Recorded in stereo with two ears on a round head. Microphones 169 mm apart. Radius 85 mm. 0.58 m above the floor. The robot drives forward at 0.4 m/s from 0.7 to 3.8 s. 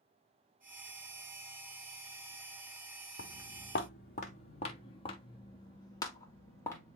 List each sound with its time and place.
3.2 s footsteps: 65° left (ahead or behind), 1.5 m; by 7.0 s 15° left (ahead or behind), 2.5 m